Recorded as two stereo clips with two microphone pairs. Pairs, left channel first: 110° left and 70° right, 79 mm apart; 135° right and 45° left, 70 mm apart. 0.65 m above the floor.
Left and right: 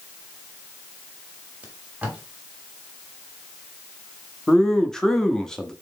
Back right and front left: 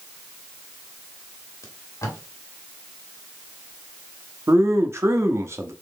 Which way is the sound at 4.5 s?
35° left.